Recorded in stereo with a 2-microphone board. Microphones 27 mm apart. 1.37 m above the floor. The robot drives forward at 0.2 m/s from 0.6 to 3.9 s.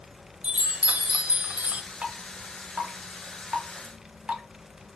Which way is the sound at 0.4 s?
50° right (ahead or behind).